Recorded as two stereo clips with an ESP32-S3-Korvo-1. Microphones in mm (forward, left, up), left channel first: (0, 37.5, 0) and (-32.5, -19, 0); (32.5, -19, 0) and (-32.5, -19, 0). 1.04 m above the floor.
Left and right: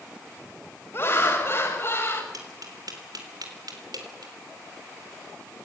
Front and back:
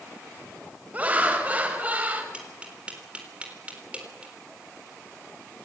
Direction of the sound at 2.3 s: 110° right.